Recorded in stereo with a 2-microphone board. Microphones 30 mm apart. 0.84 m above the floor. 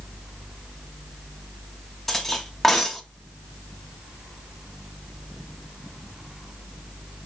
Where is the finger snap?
I don't hear a finger snap.